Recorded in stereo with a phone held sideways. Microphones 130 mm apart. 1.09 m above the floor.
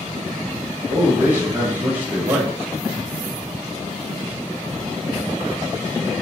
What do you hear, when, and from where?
0.9 s a man speaking: 15° right (ahead or behind), 1.0 m